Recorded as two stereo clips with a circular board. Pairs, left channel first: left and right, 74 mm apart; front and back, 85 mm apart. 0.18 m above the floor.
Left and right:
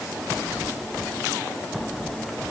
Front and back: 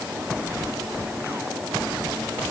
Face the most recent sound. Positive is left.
No sound to turn to.